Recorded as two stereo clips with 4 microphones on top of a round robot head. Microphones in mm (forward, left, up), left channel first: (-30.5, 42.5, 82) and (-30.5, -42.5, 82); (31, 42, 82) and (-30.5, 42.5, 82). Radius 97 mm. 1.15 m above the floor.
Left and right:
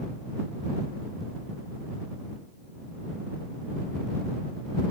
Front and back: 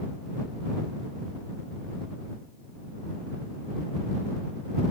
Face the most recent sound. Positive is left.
No sound to turn to.